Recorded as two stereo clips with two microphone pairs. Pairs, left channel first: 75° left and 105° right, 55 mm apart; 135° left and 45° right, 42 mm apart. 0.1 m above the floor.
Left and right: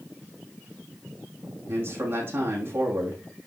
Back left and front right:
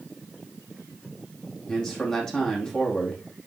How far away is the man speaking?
About 4.5 m.